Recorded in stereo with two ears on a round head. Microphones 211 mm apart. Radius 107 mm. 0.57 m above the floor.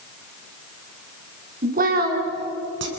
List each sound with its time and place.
1.6 s a woman speaking: 35° right (ahead or behind), 4.5 m; by 2.9 s 55° right (ahead or behind), 5 m